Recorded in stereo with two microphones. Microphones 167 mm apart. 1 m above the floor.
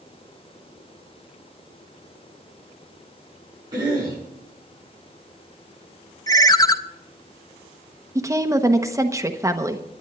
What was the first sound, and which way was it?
A cough, 25° right (ahead or behind).